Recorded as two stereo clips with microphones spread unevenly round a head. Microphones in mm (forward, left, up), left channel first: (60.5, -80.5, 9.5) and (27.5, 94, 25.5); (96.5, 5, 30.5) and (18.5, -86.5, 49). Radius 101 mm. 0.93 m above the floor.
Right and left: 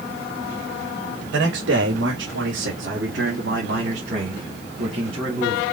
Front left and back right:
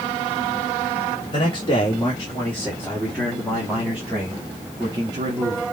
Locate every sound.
1.3 s a man speaking: 105° left, 3 m; by 5.6 s 170° left, 3 m